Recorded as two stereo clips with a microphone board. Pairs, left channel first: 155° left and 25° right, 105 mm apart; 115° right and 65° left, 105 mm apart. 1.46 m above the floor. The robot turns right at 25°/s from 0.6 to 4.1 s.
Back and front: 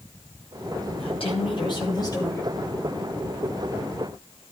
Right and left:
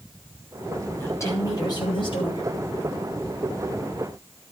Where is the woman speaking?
Straight behind, 8 m; by 2.5 s 140° right, 8 m.